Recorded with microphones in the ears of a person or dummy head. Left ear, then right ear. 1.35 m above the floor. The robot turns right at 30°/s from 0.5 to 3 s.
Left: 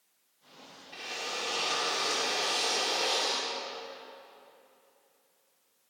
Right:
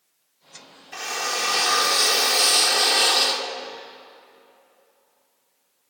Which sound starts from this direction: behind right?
A drill, at 0.9 s.